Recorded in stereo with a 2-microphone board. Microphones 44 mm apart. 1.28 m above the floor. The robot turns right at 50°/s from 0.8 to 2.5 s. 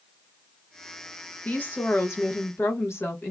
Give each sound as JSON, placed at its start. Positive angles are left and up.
{"t": 1.4, "sound": "a woman speaking", "azimuth_deg": 40, "distance_m": 1.5}